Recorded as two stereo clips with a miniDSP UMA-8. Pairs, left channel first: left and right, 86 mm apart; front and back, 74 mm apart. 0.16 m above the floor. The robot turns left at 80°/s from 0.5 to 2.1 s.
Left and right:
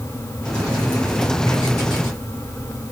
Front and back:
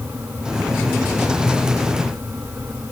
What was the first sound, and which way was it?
Only background noise.